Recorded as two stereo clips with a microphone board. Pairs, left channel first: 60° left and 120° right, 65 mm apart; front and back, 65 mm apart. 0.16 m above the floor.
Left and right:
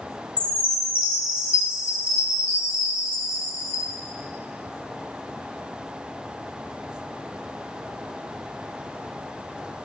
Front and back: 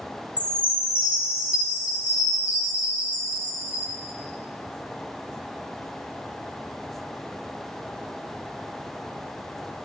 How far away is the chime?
About 1.0 m.